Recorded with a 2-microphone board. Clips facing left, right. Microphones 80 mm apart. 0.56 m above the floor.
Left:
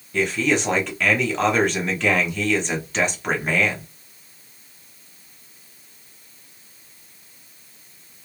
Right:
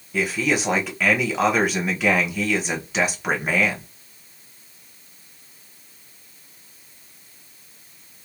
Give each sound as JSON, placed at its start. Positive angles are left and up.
{"t": 0.1, "sound": "a man speaking", "side_deg": -5, "distance_m": 0.9}